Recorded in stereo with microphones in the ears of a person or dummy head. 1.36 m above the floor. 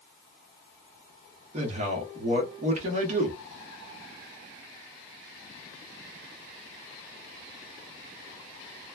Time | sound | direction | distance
1.5 | a man speaking | 45° right (ahead or behind) | 1.1 m